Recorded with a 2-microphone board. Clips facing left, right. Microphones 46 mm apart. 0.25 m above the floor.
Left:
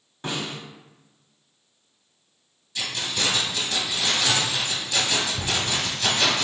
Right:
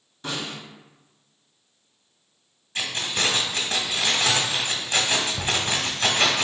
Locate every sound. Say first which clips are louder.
0.2 s a snare drum: left 1 dB; 40° left (ahead or behind), 1.7 m
2.8 s keys jangling: right 1 dB; 40° right (ahead or behind), 1.0 m